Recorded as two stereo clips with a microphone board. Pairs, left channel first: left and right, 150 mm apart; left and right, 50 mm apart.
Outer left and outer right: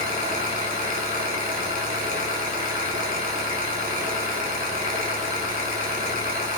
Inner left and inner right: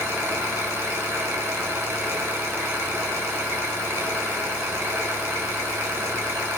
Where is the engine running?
75° right (ahead or behind), 2.5 m.